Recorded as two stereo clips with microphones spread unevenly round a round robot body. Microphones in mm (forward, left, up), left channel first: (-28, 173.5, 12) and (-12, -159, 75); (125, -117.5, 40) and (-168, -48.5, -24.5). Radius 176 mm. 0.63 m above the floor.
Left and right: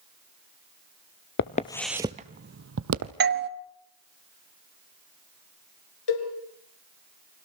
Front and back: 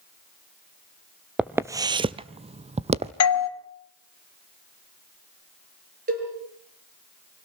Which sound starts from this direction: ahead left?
Footsteps, at 1.4 s.